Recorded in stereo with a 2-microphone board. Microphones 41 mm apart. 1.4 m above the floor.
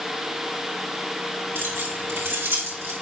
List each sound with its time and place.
1.6 s keys jangling: 80° right, 3 m; by 2.9 s 70° right (ahead or behind), 2.5 m